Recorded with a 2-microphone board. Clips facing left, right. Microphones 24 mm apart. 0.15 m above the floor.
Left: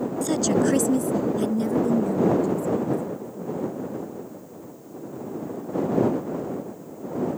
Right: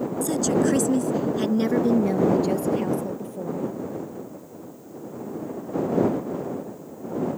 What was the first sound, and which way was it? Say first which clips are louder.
A woman speaking: even; 20° left (ahead or behind).